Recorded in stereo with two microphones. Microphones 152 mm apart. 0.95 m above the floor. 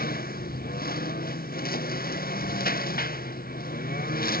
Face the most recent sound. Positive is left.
turn(degrees=80)